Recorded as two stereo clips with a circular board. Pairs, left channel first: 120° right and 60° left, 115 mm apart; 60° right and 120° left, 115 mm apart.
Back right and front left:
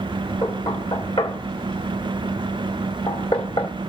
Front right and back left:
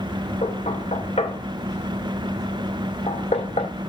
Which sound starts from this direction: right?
Knocking, at 0.4 s.